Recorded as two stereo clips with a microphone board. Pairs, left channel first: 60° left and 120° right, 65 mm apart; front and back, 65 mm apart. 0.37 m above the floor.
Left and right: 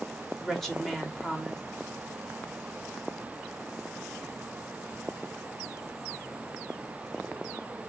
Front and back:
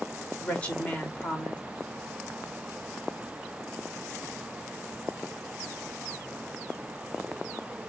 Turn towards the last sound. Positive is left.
turn(degrees=-25)